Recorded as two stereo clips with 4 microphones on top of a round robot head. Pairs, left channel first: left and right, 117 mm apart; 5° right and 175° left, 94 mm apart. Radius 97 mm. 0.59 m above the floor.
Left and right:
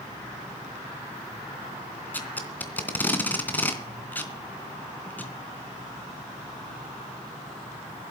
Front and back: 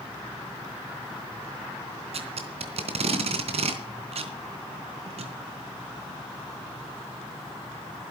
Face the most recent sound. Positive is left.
turn(degrees=165)